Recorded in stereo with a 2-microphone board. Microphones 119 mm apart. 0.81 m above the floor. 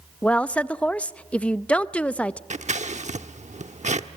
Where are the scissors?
80° right, 0.9 m.